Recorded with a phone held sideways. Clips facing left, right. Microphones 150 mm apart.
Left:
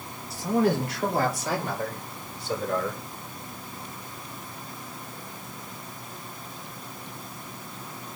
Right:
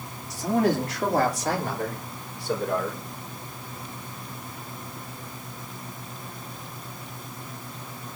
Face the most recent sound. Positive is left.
turn(degrees=-65)  # may be behind; listen again after turning